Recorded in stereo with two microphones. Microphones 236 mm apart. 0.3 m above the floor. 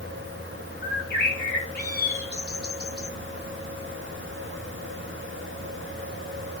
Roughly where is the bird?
Left.